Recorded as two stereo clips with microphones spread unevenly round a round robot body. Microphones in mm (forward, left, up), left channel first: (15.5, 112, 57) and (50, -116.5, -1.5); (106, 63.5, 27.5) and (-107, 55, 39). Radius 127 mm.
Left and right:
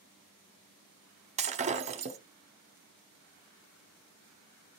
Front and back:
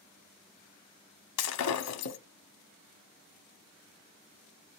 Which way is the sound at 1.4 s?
15° right.